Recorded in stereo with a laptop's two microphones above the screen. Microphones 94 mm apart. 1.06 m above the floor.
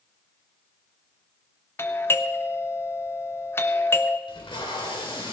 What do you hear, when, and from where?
1.8 s a doorbell: 25° left (ahead or behind), 0.9 m
4.3 s tape being pulled: 65° left (ahead or behind), 3.5 m